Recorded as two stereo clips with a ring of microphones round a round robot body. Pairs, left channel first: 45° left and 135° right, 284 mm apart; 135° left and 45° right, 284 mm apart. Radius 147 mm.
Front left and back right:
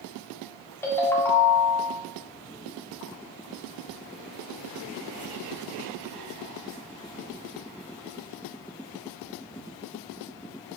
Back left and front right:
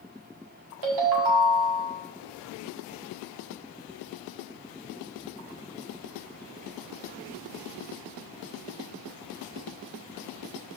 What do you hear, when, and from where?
0.8 s a ringtone: 35° right, 1.5 m